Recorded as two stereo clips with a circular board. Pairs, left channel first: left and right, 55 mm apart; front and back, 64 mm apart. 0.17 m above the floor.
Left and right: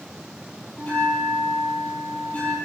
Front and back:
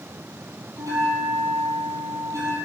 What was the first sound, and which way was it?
A bell, 150° left.